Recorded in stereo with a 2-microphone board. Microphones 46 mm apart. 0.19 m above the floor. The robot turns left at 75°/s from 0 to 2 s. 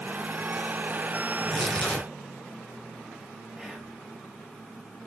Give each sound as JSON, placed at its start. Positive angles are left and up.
{"t": 1.3, "sound": "tearing paper", "azimuth_deg": -160, "distance_m": 3.0}
{"t": 3.6, "sound": "whispering", "side_deg": -10, "distance_m": 4.5}